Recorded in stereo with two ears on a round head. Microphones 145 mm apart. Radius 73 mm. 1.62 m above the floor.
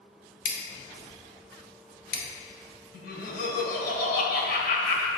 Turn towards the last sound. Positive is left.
turn(degrees=60)  # may be behind; listen again after turning